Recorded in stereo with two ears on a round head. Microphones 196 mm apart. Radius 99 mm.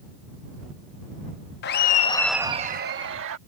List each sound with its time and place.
1.6 s laughter: 50° left (ahead or behind); by 3.4 s 65° right (ahead or behind)